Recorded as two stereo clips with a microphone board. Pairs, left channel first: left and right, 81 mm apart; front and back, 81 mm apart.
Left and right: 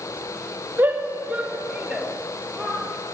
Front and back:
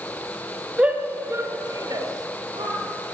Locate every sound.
0.8 s a shout: 120° right, 1.4 m; by 2.8 s 175° left, 2.5 m